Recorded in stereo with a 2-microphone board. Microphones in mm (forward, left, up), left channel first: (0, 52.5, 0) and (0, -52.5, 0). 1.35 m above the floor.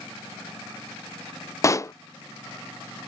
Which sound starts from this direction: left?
A pop, at 1.6 s.